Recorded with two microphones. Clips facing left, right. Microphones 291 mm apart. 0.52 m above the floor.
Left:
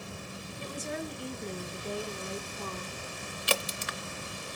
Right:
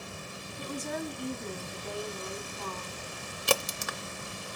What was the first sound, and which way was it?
A woman speaking, 55° right (ahead or behind).